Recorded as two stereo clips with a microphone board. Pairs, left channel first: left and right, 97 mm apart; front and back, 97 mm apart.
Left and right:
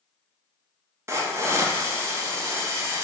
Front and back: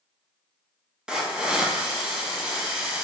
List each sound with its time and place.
1.1 s a hiss: 110° right, 0.6 m